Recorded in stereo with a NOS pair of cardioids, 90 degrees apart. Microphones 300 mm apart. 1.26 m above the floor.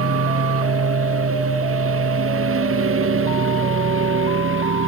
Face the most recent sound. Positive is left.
turn(degrees=-45)